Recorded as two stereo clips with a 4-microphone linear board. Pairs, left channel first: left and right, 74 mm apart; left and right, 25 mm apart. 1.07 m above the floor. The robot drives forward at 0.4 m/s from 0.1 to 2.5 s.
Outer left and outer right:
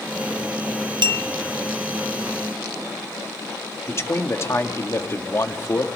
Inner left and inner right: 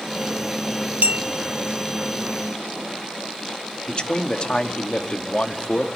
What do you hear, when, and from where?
1.0 s a clink: 85° right, 1.0 m
3.9 s a man speaking: 35° left (ahead or behind), 1.7 m